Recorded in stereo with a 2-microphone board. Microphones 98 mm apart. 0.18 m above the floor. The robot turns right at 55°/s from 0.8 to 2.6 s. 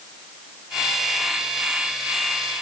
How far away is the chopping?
No chopping in this recording.